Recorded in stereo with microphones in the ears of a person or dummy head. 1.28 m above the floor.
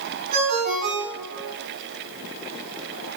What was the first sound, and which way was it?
A ringtone, 50° right (ahead or behind).